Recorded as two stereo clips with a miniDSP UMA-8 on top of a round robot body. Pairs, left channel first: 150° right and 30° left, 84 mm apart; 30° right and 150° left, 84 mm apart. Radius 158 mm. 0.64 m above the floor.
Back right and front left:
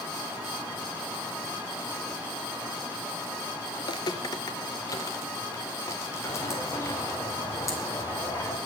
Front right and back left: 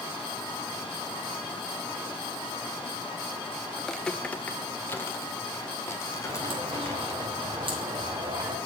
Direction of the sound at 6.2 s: 155° left.